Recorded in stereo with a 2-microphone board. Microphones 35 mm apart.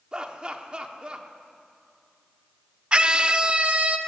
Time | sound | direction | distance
0.1 | laughter | 20° right (ahead or behind) | 1.1 m
2.9 | a scream | 25° right (ahead or behind) | 0.7 m